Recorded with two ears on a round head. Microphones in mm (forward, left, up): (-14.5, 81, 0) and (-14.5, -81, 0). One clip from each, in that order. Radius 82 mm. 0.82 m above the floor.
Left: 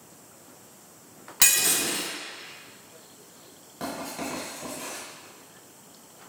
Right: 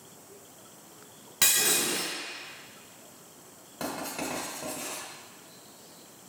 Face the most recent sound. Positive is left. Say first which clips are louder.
# left 1 dB
turn(degrees=-30)  # may be behind; listen again after turning